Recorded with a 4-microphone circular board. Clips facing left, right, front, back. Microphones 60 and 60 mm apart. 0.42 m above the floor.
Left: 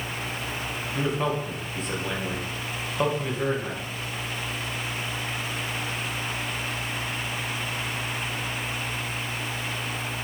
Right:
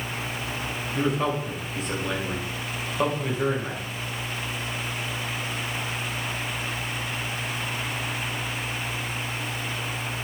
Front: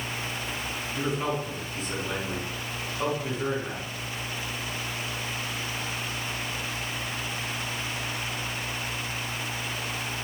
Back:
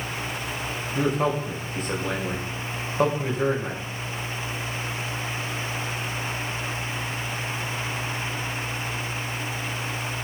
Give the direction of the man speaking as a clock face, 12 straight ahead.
6 o'clock.